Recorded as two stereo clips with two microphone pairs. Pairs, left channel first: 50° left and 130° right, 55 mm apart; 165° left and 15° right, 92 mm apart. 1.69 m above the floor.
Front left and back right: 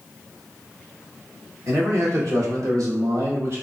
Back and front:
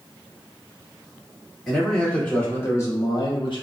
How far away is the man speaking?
About 1.2 m.